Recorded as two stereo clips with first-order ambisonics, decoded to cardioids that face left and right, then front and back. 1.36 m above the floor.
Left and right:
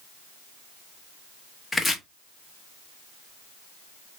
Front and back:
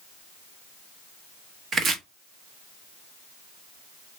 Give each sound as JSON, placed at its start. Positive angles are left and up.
{"t": 1.7, "sound": "chopping", "azimuth_deg": 165, "distance_m": 0.7}